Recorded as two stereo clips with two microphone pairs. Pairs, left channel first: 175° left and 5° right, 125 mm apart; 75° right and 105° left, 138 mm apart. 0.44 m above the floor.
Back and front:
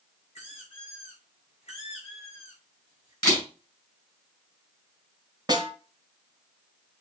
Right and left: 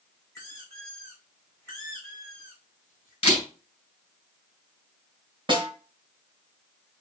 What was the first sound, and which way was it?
A squeak, 145° right.